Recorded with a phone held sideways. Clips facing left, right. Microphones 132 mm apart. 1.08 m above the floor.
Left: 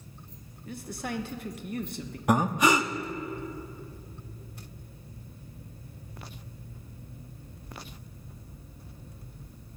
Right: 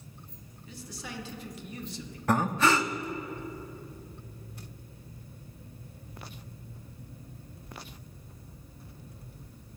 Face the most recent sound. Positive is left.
turn(degrees=15)  # may be behind; listen again after turning